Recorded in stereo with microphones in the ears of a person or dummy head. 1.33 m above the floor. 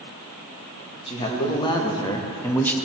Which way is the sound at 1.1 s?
30° left (ahead or behind).